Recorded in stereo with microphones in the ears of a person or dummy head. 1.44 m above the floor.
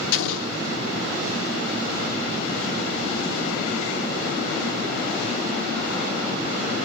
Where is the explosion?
80° left, 0.8 m.